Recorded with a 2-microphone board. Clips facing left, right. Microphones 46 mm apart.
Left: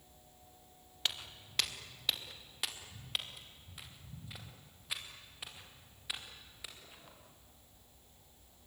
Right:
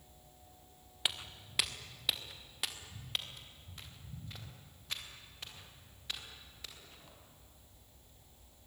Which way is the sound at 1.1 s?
15° right (ahead or behind).